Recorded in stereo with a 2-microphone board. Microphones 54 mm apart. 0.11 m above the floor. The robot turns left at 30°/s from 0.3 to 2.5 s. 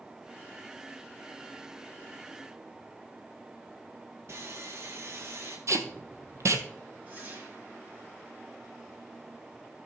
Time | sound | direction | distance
4.3 | sawing | 55° right (ahead or behind) | 1.9 m
5.7 | tape being pulled | 60° right (ahead or behind) | 1.0 m
7.1 | a whoosh | 40° right (ahead or behind) | 3 m